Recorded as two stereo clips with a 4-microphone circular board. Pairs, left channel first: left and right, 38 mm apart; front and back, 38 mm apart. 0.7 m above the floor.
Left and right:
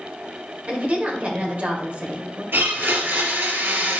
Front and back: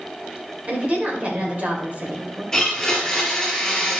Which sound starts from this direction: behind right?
A woman speaking, at 0.7 s.